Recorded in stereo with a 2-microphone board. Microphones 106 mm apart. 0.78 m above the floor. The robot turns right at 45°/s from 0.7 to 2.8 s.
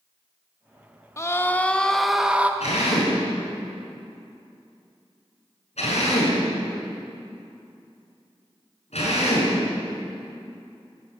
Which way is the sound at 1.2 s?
140° left.